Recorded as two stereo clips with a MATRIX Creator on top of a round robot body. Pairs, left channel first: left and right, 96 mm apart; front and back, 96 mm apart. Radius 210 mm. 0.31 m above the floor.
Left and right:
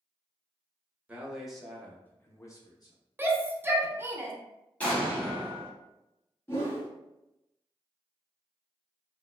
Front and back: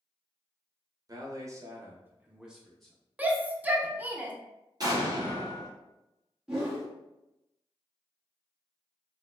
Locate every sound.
1.1 s a man speaking: 160° right, 1.0 m; by 3.0 s 85° left, 1.0 m
3.2 s a shout: 125° right, 0.9 m
4.8 s an explosion: 160° left, 1.5 m
6.5 s a whoosh: 105° left, 1.4 m